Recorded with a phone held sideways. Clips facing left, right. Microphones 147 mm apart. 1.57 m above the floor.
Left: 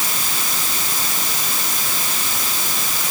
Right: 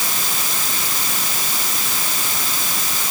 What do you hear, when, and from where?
Only background noise.